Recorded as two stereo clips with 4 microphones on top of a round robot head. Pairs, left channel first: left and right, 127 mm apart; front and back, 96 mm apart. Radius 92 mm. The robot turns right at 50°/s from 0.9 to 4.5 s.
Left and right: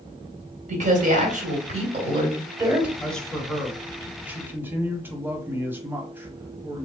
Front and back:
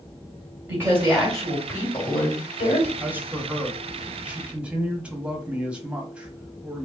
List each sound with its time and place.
0.7 s a woman speaking: 110° right, 2.5 m; by 2.9 s 10° right, 2.5 m
3.0 s a man speaking: 160° left, 1.1 m; by 6.9 s 125° right, 1.1 m